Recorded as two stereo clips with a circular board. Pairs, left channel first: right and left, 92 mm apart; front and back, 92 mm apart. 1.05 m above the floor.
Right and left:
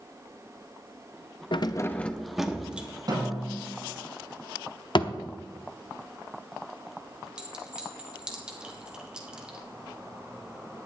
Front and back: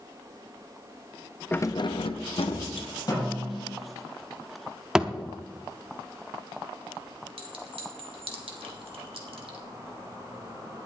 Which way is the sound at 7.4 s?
170° left.